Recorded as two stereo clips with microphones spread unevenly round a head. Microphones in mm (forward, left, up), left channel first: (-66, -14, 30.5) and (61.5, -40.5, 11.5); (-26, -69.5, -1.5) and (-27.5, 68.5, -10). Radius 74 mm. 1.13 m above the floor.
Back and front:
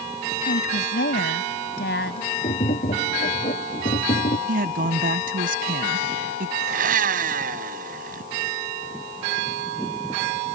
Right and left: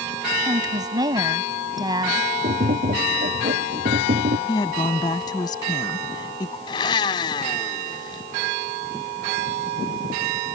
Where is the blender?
30° right.